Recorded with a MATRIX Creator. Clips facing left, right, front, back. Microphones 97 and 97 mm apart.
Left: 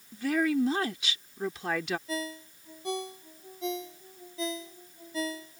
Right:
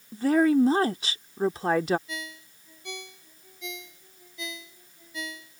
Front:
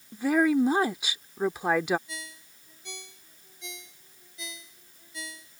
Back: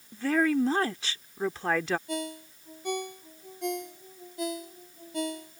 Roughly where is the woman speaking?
Right.